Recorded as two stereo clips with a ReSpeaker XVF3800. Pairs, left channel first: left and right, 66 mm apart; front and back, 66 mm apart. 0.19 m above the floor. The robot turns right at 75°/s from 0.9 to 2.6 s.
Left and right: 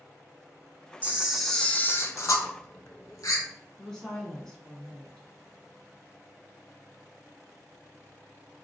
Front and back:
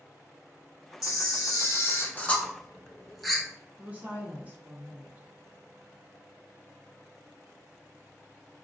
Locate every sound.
1.0 s a camera shutter: 25° right, 0.5 m; by 3.4 s 90° left, 0.5 m
3.8 s a woman speaking: 160° left, 1.1 m